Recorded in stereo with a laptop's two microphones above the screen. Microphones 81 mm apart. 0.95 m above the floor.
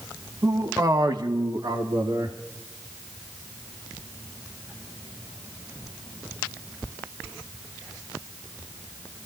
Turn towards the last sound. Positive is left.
turn(degrees=-80)